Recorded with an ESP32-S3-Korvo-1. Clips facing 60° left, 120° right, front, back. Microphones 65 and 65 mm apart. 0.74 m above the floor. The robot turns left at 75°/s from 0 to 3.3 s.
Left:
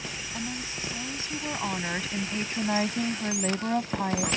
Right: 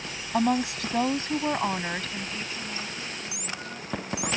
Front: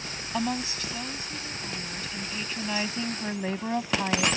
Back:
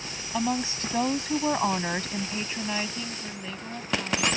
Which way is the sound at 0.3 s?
90° right.